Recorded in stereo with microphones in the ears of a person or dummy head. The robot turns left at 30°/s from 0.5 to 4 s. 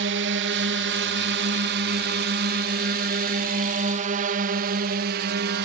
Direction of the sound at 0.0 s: 60° right (ahead or behind).